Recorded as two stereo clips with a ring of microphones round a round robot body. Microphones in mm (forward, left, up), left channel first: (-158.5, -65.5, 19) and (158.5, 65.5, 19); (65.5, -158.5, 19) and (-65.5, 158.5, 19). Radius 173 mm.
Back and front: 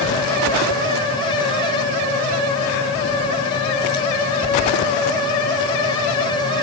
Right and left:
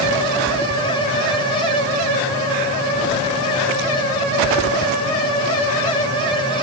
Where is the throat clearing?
I don't hear throat clearing.